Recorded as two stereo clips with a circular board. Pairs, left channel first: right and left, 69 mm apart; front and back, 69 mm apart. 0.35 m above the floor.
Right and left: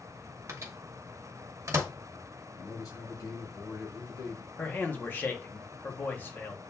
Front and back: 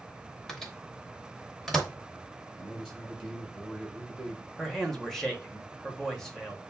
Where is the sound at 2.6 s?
80° right, 2.5 m.